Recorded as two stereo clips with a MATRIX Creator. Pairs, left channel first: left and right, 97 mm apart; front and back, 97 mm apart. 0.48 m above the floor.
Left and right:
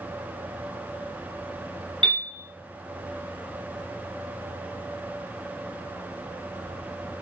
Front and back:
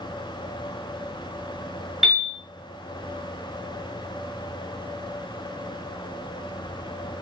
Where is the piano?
95° right, 1.3 m.